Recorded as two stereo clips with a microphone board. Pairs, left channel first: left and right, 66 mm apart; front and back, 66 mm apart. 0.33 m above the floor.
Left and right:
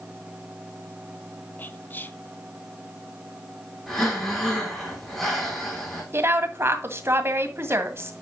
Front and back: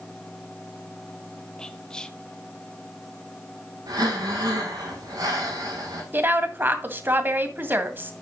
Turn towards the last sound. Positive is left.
turn(degrees=-130)